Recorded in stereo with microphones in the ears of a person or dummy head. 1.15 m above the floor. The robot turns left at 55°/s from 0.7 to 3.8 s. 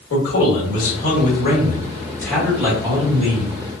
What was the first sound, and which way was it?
A man speaking, 95° left.